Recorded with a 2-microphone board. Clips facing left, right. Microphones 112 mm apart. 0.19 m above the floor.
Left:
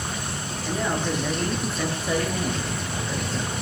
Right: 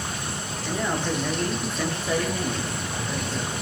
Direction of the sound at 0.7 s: 5° left (ahead or behind).